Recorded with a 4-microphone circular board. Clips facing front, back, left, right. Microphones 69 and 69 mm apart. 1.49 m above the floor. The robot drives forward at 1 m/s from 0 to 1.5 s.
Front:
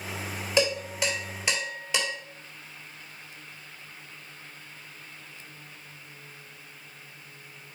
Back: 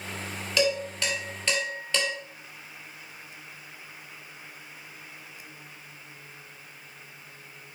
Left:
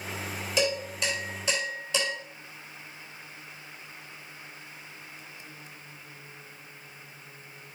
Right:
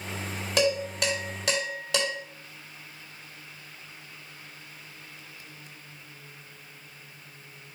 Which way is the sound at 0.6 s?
60° right.